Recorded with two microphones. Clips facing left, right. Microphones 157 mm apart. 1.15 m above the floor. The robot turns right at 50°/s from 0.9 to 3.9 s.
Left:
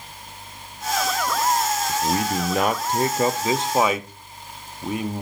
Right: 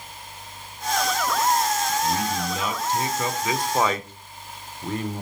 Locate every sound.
1.9 s a man speaking: 65° left, 0.6 m; by 5.2 s 165° left, 0.6 m